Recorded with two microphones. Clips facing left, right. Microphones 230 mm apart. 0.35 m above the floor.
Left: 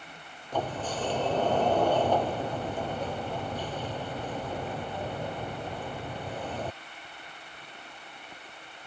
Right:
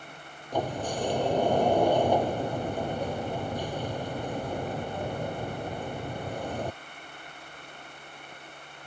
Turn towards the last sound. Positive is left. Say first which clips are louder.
# right 2 dB
turn(degrees=-15)  # may be behind; listen again after turning